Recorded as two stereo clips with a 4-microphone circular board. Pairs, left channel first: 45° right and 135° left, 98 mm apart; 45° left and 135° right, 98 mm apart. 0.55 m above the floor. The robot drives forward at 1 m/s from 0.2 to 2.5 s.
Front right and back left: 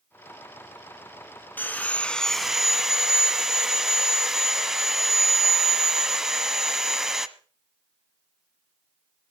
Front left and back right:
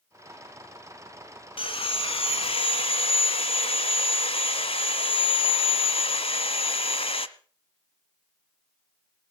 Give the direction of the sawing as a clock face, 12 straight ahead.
11 o'clock.